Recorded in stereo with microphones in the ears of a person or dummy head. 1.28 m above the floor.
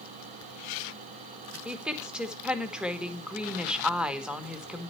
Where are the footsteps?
I don't hear footsteps.